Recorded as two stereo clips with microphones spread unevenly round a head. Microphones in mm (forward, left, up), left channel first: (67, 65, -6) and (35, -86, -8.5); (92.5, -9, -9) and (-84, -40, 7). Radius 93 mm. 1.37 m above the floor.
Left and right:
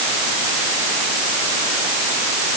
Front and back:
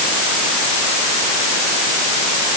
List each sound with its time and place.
Only background noise.